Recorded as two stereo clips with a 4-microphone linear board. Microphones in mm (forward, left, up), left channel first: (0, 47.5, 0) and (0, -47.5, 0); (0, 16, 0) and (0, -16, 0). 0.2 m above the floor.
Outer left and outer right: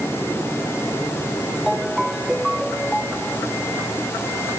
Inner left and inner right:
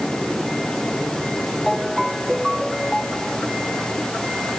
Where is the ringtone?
Centre (ahead or behind).